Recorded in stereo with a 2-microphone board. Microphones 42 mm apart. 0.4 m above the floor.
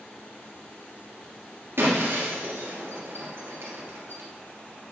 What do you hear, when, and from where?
1.8 s breaking glass: 65° right (ahead or behind), 2.5 m